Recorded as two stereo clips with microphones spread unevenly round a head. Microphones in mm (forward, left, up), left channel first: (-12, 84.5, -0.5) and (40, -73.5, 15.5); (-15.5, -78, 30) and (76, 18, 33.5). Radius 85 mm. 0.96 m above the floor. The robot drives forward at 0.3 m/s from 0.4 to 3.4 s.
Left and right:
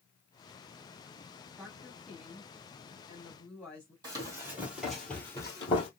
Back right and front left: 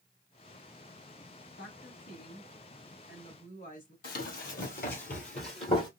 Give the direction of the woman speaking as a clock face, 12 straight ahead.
5 o'clock.